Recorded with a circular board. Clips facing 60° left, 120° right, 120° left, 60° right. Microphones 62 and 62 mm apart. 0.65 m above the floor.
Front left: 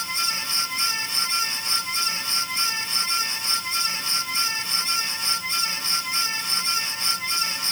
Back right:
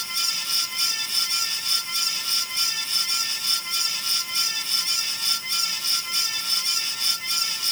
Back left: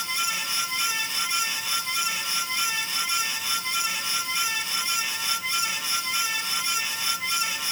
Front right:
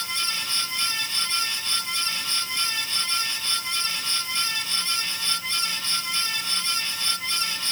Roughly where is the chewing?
No chewing in this recording.